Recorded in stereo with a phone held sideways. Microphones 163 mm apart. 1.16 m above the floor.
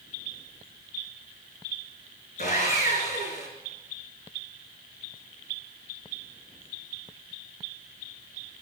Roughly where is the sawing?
Left.